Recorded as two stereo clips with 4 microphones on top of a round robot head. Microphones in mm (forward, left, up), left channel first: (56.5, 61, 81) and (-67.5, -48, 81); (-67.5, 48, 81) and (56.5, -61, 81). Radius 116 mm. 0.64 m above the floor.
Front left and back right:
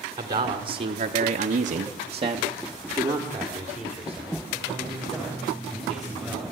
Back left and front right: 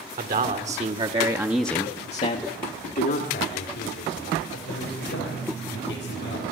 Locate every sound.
0.2 s a man speaking: 75° right, 2 m; by 6.4 s 130° left, 5.5 m